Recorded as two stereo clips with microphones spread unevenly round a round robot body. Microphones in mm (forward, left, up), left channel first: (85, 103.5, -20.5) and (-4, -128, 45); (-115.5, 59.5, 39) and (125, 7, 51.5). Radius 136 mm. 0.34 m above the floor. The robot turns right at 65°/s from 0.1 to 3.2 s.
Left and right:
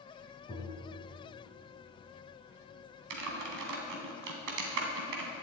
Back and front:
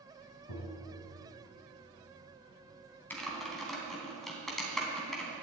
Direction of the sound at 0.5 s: 145° left.